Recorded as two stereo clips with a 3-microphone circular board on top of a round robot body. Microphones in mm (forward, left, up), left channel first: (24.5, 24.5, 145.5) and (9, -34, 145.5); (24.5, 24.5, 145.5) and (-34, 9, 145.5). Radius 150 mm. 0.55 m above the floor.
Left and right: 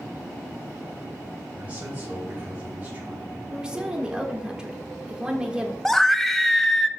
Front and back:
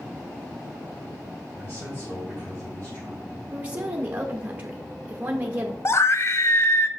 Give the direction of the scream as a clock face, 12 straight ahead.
12 o'clock.